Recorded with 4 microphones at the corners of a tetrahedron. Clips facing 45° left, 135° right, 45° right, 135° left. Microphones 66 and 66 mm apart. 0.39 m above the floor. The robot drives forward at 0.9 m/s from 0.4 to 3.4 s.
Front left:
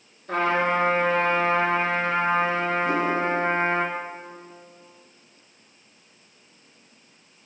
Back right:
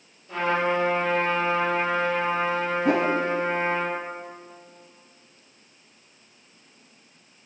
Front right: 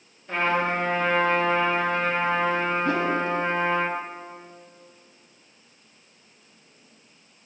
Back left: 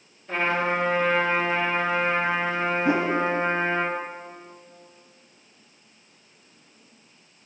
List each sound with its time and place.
0.3 s a trumpet: 40° left, 5.5 m; by 3.9 s 65° left, 4 m
2.9 s a whoosh: 150° right, 0.9 m; by 3.2 s 160° right, 1.2 m